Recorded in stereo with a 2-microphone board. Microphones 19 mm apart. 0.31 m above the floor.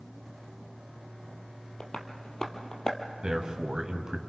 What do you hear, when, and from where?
1.8 s tapping: 40° left (ahead or behind), 2.0 m
3.2 s a man speaking: 45° right (ahead or behind), 2.5 m